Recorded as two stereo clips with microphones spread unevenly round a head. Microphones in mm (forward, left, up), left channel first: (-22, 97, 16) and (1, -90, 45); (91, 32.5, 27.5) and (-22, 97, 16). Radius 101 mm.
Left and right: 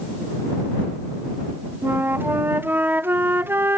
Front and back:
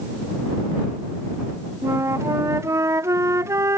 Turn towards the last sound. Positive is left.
turn(degrees=-170)